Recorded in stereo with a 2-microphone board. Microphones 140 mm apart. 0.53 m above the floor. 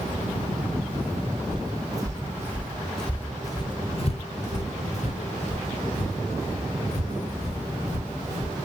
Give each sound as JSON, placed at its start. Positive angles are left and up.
{"t": 1.5, "sound": "footsteps", "side_deg": -30, "distance_m": 1.1}